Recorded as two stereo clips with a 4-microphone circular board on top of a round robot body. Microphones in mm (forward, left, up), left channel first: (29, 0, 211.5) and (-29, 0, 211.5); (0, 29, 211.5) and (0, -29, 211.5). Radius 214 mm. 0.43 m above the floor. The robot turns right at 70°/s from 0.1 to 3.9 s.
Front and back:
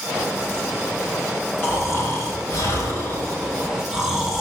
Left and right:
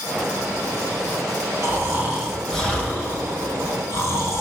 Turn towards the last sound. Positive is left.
turn(degrees=105)